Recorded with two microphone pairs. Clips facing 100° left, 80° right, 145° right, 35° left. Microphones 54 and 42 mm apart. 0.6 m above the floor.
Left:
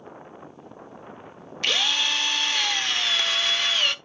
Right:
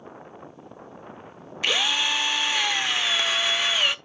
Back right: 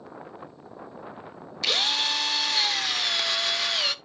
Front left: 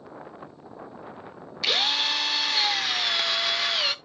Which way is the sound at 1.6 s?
35° right.